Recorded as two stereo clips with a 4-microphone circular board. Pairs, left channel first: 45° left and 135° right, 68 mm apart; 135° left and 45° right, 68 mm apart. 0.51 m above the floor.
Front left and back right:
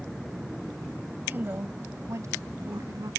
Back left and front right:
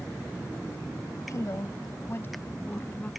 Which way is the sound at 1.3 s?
165° left.